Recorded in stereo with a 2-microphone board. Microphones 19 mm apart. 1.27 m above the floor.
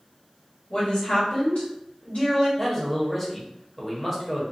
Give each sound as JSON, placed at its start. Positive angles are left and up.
{"t": 0.7, "sound": "a woman speaking", "side_deg": 65, "distance_m": 1.3}
{"t": 2.6, "sound": "a man speaking", "side_deg": 10, "distance_m": 0.9}